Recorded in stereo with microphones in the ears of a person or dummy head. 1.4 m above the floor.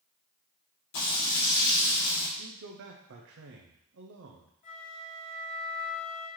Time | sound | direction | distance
0.9 | frying | 55° left (ahead or behind) | 2.5 m
2.4 | a man speaking | 65° right (ahead or behind) | 0.6 m
4.6 | a flute | 30° left (ahead or behind) | 1.1 m